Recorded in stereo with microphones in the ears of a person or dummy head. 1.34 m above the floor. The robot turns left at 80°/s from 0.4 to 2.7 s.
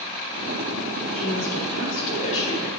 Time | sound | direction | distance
1.1 | a woman speaking | 135° left | 3.5 m